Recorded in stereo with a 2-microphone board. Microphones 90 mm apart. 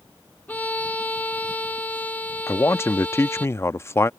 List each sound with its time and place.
0.5 s a violin: 15° left (ahead or behind)
2.5 s a man speaking: 30° left (ahead or behind)